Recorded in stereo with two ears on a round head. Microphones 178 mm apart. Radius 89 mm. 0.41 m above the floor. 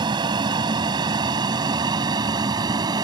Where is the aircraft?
20° right (ahead or behind).